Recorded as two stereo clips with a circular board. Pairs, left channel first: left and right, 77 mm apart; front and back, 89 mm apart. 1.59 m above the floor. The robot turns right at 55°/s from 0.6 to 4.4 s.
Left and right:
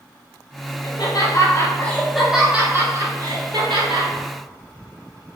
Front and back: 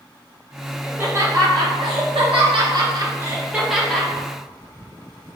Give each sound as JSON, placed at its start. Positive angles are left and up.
{"t": 0.8, "sound": "laughter", "azimuth_deg": 105, "distance_m": 1.3}